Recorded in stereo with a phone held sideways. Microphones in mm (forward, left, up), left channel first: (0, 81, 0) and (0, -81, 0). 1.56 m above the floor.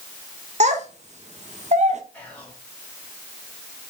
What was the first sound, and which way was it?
A child speaking, 45° right (ahead or behind).